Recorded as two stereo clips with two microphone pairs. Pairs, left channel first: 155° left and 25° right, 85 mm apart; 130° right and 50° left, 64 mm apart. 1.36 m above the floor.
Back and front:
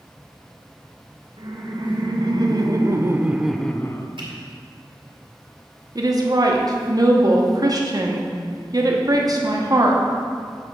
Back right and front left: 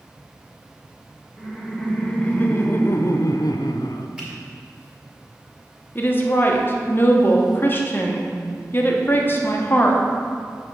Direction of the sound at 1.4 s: 50° right.